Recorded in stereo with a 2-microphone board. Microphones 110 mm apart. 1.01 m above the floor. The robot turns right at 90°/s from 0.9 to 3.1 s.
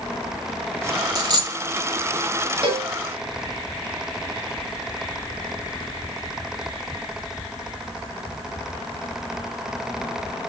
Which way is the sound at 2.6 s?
50° right (ahead or behind).